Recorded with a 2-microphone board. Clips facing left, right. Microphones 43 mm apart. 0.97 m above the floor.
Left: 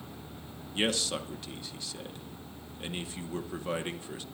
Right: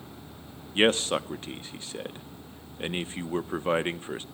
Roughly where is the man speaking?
Right.